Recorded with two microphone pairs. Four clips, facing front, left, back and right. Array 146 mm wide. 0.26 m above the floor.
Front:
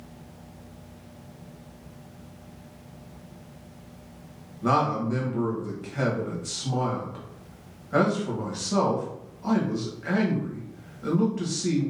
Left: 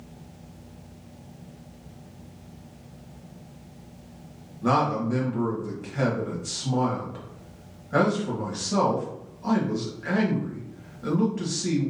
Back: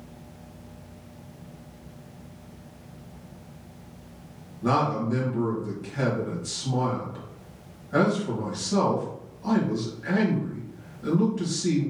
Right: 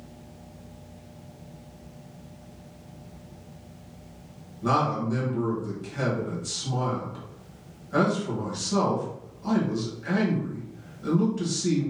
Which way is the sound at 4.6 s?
35° left.